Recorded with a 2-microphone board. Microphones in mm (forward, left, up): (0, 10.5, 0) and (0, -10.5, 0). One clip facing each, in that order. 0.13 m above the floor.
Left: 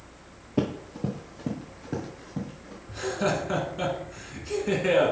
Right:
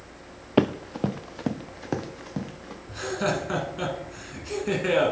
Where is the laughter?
10° right (ahead or behind), 1.4 m.